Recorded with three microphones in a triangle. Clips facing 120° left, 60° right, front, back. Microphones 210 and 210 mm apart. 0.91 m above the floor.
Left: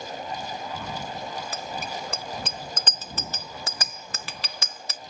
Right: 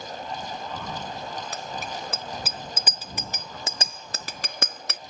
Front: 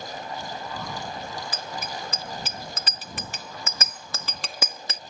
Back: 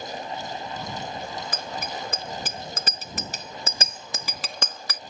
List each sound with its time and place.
1.5 s a bicycle bell: 150° right; by 5.0 s 60° right